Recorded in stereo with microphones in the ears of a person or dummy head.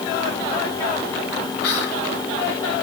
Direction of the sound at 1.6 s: 65° left (ahead or behind).